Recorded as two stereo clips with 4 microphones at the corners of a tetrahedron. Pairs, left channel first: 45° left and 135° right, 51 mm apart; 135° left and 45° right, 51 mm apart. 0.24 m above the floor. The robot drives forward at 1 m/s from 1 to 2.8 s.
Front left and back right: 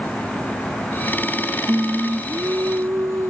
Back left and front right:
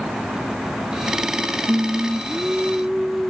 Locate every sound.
1.7 s singing: 95° right; by 3.3 s 130° right